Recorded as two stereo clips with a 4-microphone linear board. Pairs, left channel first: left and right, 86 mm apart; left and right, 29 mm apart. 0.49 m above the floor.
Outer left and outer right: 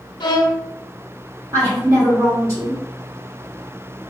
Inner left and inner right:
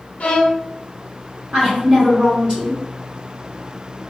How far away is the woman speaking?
About 1.7 m.